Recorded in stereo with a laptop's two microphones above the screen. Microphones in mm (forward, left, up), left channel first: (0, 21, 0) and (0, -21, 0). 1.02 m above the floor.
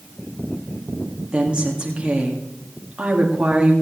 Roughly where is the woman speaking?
Right.